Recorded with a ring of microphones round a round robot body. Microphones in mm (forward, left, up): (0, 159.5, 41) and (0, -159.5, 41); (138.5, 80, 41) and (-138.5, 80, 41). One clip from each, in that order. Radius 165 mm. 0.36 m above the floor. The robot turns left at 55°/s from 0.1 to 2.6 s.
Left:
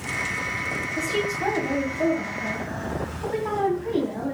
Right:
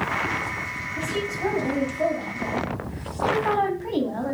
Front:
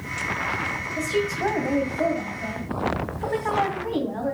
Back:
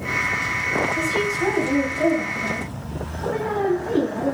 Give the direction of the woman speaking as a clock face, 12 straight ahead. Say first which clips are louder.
Left 1 dB, back 3 dB; 10 o'clock.